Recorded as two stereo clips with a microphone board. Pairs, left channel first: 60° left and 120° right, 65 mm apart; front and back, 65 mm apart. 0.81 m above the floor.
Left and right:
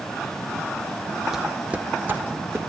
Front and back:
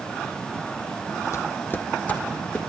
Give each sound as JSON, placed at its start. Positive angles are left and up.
{"t": 1.3, "sound": "footsteps", "azimuth_deg": -35, "distance_m": 1.4}